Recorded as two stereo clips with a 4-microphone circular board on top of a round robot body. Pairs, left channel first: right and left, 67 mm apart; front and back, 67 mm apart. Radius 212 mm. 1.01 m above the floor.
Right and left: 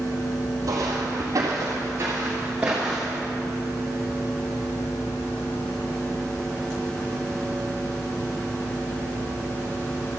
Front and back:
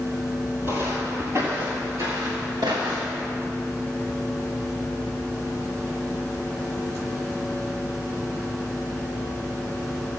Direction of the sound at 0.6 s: 125° left.